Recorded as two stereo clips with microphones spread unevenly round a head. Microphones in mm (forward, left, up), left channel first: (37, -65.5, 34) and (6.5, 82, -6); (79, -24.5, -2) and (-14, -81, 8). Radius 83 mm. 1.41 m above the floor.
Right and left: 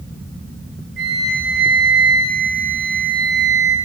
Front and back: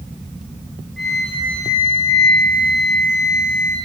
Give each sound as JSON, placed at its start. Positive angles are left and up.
{"t": 1.0, "sound": "a flute", "azimuth_deg": 125, "distance_m": 1.8}